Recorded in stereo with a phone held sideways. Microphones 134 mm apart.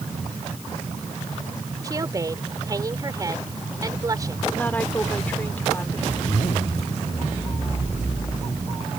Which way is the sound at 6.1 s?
50° left (ahead or behind).